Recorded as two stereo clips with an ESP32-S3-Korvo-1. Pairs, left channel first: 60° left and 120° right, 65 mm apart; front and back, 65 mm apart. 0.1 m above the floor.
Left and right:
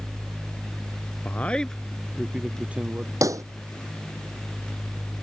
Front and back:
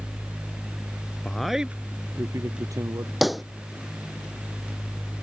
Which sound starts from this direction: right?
A pop, at 3.2 s.